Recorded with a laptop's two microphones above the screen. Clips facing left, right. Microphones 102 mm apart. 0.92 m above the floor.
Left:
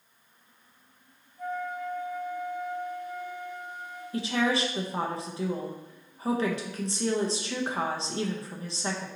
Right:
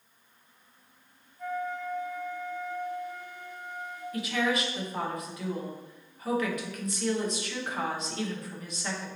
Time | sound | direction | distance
1.4 | a flute | 50° left (ahead or behind) | 1.5 m
4.1 | a woman speaking | 30° left (ahead or behind) | 0.7 m